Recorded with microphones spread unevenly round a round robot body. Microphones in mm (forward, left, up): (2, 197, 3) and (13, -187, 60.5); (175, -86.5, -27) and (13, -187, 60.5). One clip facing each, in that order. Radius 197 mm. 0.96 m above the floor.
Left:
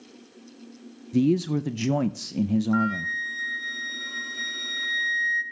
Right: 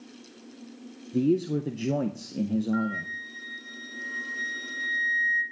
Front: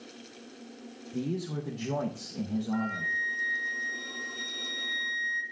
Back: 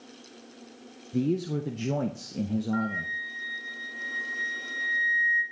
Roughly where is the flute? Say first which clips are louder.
Left 3 dB, back 2 dB; behind left.